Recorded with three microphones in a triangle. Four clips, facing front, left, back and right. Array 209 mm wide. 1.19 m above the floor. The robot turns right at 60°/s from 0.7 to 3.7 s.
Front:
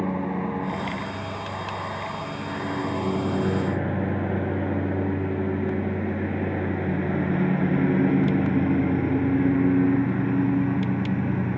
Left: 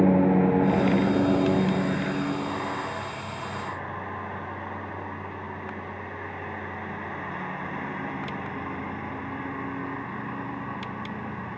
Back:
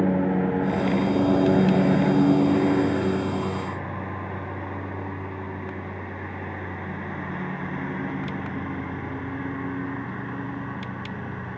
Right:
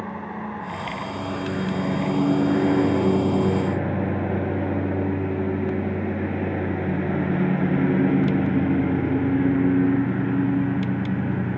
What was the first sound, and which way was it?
A lawn mower, 110° left.